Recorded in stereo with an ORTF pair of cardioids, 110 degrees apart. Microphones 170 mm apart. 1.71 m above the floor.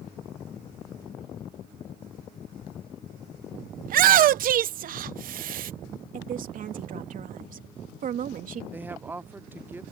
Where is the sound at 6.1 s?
55° right.